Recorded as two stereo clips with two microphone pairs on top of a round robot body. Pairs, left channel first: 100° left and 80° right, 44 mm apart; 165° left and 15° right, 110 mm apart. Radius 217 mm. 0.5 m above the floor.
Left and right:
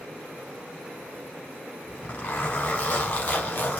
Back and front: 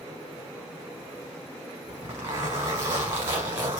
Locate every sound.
1.9 s a zipper: 45° left, 1.0 m